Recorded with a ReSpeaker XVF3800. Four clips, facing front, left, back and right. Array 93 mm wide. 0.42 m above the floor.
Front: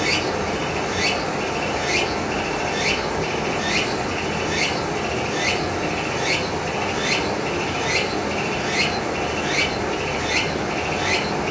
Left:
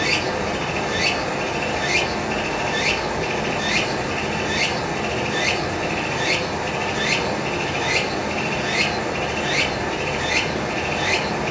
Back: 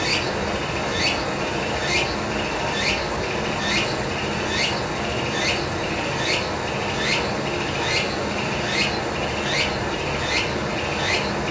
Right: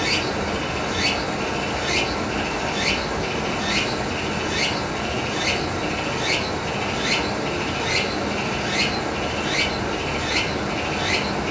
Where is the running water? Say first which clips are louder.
Left 1 dB, front 2 dB; 70° left, 1.4 m.